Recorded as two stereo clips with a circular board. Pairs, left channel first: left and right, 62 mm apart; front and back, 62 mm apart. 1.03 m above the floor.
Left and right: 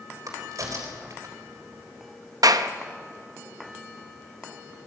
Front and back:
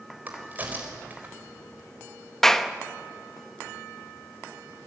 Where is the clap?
85° right, 1.0 m.